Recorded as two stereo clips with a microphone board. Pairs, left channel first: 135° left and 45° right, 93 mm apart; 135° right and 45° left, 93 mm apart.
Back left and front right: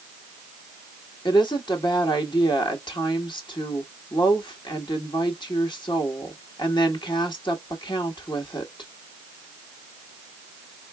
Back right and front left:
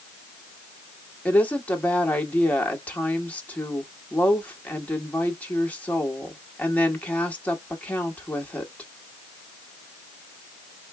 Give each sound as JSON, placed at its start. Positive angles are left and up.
{"t": 1.2, "sound": "a woman speaking", "azimuth_deg": 155, "distance_m": 1.5}